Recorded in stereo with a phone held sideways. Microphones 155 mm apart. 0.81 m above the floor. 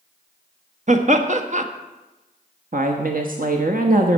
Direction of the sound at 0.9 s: 50° right (ahead or behind).